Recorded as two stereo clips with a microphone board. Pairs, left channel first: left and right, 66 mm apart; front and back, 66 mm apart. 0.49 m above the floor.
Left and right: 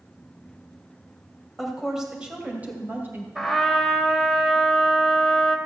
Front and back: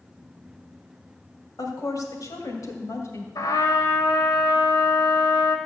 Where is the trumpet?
Straight ahead, 1.4 m.